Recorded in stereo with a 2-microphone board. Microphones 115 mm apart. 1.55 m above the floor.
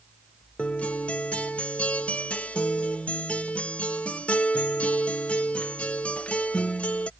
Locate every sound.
0.6 s a guitar: 10° left (ahead or behind)